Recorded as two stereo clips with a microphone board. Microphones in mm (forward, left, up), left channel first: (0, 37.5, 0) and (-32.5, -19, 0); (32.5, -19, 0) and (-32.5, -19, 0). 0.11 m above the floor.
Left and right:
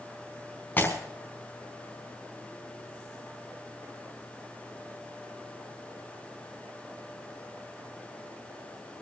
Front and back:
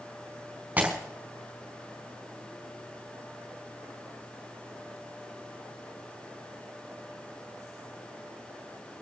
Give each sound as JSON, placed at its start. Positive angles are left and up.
{"t": 0.8, "sound": "breaking glass", "azimuth_deg": 115, "distance_m": 5.0}